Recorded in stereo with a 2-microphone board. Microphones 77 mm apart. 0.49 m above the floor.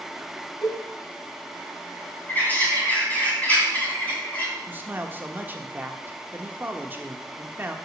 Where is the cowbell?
70° left (ahead or behind), 4 m.